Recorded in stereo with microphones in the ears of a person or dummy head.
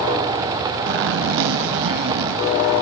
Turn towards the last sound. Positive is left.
turn(degrees=-55)  # may be behind; listen again after turning